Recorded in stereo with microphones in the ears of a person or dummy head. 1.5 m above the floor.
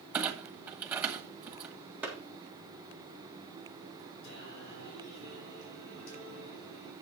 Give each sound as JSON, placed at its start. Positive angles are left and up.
{"t": 0.1, "sound": "a clunk", "side_deg": -10, "distance_m": 1.3}
{"t": 2.0, "sound": "a clap", "side_deg": -10, "distance_m": 3.5}
{"t": 4.2, "sound": "singing", "side_deg": 75, "distance_m": 6.0}